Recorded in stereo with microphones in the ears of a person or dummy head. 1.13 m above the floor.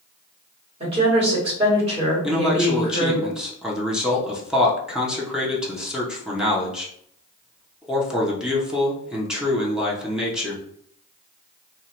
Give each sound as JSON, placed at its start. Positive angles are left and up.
{"t": 0.8, "sound": "a woman speaking", "side_deg": -40, "distance_m": 1.7}
{"t": 2.2, "sound": "a man speaking", "side_deg": -5, "distance_m": 0.6}